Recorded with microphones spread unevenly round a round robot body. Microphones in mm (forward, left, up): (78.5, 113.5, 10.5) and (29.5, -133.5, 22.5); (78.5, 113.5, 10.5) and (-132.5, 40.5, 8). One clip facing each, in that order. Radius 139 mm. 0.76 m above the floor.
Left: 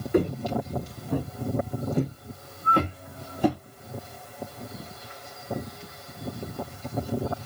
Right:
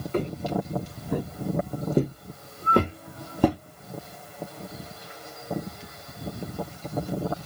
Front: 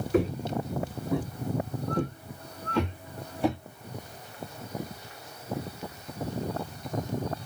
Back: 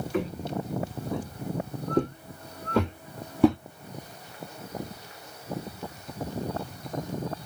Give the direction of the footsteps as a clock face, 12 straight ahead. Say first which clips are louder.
Left 4 dB, front 4 dB; 12 o'clock.